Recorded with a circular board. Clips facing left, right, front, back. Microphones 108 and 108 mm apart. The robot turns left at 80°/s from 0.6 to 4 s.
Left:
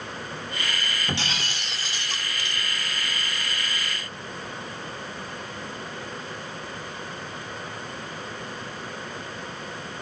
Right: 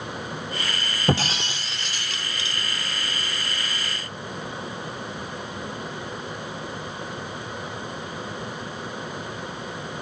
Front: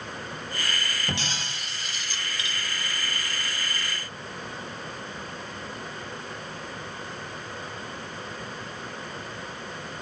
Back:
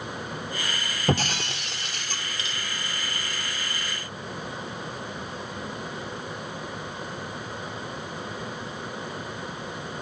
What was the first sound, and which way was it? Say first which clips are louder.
Breaking glass: right 11 dB, back 7 dB; 130° right.